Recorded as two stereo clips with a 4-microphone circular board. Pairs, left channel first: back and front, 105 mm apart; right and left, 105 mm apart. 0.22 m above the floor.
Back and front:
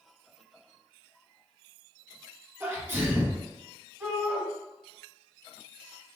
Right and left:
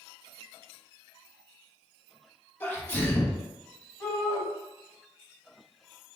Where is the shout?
65° right, 1.8 m.